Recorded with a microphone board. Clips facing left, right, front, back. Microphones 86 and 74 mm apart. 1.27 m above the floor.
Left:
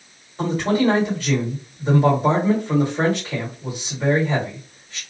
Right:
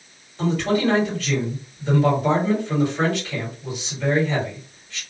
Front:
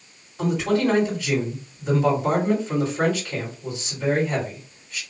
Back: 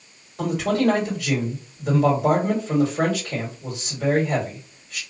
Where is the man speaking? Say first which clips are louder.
Left 1 dB, even; 145° left, 1.7 m.